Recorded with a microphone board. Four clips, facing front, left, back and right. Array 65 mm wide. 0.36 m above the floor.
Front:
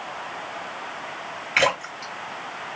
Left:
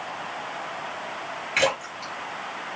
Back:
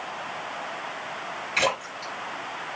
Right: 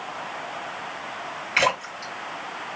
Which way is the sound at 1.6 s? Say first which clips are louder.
Right 2 dB, front 4 dB; 10° right.